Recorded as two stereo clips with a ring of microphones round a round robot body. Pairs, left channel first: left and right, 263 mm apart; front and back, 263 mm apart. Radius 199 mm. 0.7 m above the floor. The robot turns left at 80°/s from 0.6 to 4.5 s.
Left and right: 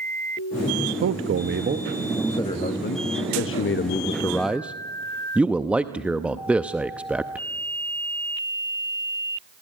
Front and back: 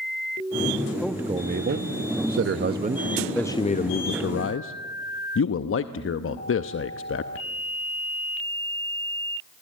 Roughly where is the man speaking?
Right.